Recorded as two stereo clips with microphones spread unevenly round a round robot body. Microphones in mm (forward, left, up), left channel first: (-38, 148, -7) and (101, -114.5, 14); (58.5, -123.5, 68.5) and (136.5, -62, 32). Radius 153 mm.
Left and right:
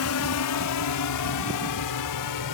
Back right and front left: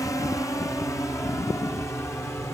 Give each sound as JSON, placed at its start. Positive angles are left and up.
{"t": 0.0, "sound": "a drone", "azimuth_deg": 145}